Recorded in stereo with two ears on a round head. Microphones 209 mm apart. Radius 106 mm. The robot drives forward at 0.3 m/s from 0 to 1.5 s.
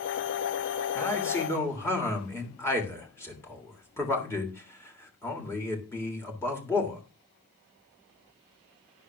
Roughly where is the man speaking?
Centre.